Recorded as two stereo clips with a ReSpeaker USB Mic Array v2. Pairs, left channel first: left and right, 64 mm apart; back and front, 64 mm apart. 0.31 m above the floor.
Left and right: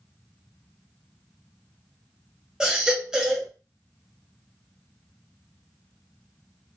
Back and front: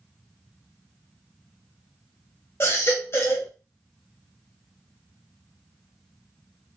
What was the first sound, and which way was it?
A baby crying, 165° right.